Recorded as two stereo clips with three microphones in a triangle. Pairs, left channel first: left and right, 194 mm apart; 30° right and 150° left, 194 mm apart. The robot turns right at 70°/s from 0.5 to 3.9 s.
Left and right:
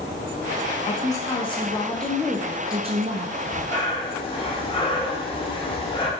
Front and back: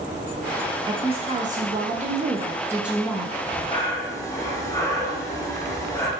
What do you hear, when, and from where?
0.9 s a woman speaking: 95° left, 0.6 m; by 3.3 s 100° right, 0.6 m
3.4 s breathing: straight ahead, 0.7 m; by 6.1 s 40° left, 0.7 m